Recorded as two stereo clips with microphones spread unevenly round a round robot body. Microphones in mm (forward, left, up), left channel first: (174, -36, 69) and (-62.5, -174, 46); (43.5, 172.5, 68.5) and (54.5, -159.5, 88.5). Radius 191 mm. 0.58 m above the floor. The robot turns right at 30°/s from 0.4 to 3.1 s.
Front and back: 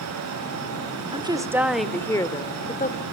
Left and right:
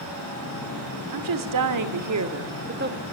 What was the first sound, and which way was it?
A woman speaking, 80° right.